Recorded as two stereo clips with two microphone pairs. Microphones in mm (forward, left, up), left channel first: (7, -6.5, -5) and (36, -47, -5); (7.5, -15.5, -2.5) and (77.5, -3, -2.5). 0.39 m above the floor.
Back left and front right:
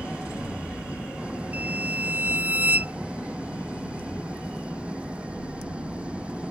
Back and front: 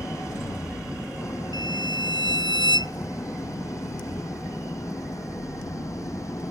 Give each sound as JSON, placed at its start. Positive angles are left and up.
{"t": 0.0, "sound": "an engine running", "azimuth_deg": -125}
{"t": 1.5, "sound": "a violin", "azimuth_deg": 0}